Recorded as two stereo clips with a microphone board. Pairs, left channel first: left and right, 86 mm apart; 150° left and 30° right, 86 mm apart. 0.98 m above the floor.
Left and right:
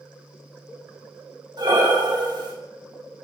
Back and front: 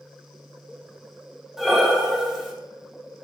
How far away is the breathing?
About 1.4 m.